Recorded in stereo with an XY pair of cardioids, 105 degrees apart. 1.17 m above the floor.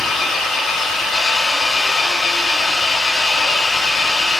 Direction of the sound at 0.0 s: 60° left.